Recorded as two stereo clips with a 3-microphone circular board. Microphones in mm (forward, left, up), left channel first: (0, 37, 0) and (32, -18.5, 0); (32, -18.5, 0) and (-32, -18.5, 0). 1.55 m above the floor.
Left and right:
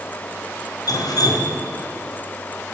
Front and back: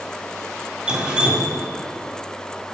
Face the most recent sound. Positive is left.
turn(degrees=105)